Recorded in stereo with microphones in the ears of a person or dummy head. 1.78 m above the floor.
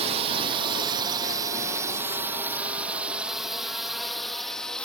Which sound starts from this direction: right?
A drone, at 0.0 s.